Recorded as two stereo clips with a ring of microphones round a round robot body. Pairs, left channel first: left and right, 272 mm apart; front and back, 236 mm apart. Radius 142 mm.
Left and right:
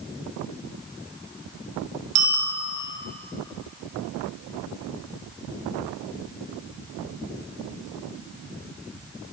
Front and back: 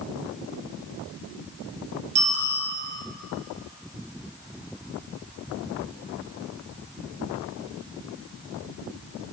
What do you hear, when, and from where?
2.1 s a bicycle bell: 115° right, 2 m